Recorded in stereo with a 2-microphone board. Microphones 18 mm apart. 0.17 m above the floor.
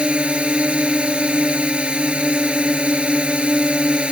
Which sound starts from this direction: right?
A drone, at 0.0 s.